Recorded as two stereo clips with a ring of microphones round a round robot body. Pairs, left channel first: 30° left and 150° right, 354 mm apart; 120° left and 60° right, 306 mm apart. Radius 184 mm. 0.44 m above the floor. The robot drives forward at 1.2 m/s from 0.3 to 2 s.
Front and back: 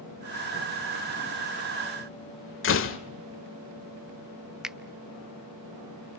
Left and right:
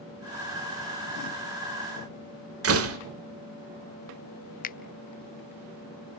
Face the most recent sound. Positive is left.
turn(degrees=125)